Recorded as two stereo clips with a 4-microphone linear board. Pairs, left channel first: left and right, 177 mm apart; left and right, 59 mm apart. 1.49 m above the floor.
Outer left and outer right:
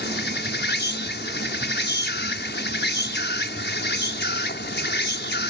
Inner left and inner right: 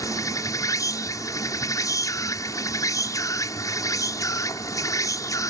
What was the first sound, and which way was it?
An insect, 80° left.